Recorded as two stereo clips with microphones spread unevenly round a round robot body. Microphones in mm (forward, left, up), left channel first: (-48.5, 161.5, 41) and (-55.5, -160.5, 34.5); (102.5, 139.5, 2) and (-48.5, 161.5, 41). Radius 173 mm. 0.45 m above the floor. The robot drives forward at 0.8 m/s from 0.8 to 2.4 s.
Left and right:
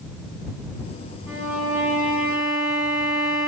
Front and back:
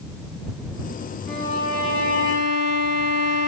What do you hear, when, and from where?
1.3 s a violin: straight behind, 4.5 m